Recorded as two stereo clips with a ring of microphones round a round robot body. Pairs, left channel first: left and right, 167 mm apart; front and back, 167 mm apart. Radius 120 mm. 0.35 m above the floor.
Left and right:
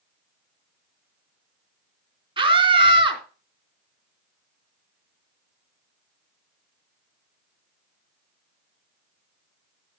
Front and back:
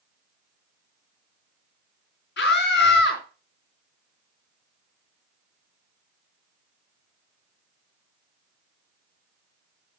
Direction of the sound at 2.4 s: 30° right.